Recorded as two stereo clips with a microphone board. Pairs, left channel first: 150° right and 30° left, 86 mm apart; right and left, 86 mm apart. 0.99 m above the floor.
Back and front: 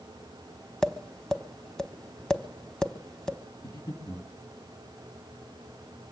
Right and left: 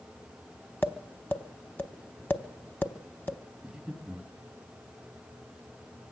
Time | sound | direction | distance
0.8 | tapping | 75° right | 0.9 m
3.6 | breathing | straight behind | 2.5 m